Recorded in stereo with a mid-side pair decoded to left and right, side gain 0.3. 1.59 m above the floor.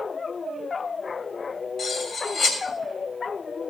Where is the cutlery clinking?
65° left, 3.5 m.